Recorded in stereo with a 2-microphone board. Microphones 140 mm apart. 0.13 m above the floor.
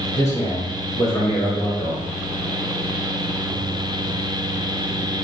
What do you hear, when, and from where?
0.1 s a man speaking: 20° left (ahead or behind), 1.4 m